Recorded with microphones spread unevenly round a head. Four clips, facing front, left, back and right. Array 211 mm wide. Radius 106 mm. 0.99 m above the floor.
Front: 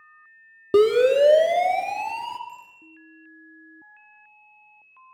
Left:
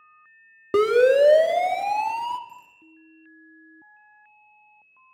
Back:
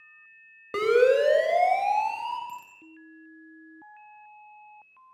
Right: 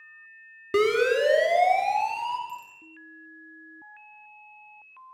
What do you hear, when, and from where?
0.7 s a siren: 25° left, 2 m; by 2.4 s 60° left, 2.5 m
2.5 s a bicycle bell: straight behind, 6.5 m